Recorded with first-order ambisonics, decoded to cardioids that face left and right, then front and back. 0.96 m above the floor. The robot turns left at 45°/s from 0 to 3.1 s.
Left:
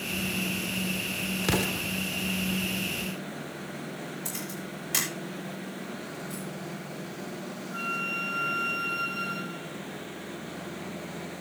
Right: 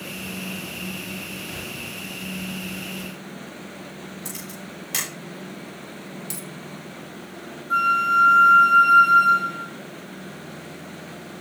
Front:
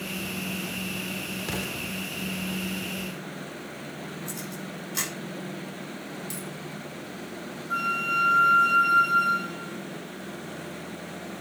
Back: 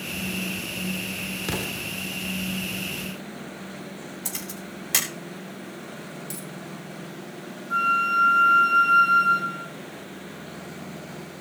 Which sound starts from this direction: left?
An explosion, at 1.4 s.